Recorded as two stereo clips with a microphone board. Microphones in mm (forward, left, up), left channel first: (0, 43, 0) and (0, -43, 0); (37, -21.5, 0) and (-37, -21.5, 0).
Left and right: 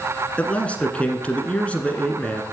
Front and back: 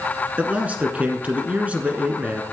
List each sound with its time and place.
0.4 s a man speaking: 140° left, 1.4 m